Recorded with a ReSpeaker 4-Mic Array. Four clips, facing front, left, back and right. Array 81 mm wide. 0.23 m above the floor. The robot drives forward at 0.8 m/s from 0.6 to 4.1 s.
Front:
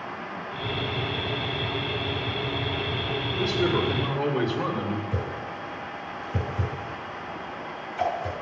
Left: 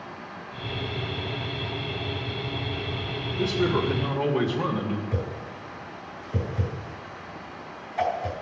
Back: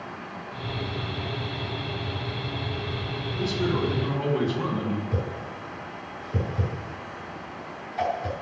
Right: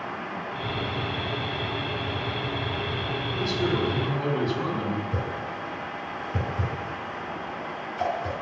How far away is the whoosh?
About 4 m.